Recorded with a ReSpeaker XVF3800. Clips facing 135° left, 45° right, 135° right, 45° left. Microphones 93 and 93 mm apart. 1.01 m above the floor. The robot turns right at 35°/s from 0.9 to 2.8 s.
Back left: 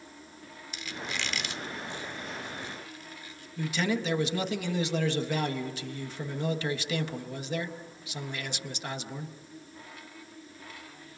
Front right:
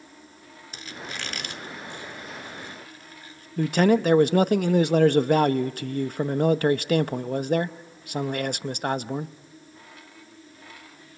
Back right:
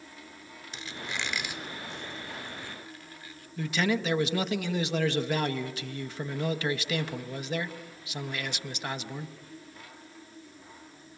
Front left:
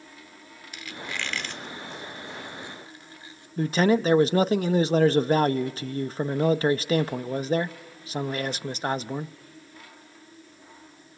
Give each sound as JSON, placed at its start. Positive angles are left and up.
{"t": 0.7, "sound": "a squeak", "azimuth_deg": -80, "distance_m": 0.8}
{"t": 3.6, "sound": "a man speaking", "azimuth_deg": -10, "distance_m": 0.7}